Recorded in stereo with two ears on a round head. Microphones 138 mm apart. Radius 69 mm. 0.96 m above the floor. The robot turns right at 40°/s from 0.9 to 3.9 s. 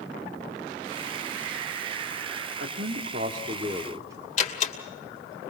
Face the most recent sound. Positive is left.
turn(degrees=45)  # may be behind; listen again after turning